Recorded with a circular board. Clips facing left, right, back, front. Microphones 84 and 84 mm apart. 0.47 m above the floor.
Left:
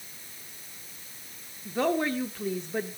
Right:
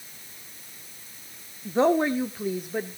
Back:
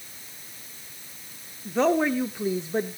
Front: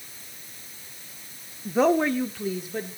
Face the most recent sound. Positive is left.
turn(degrees=-175)